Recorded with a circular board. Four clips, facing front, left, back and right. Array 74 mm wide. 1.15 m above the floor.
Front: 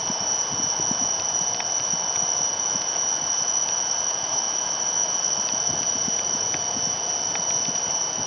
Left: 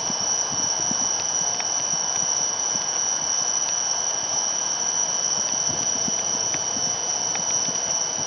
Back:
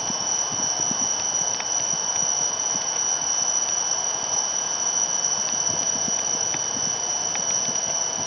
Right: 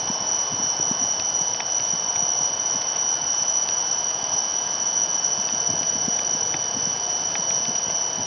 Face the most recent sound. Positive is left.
turn(degrees=70)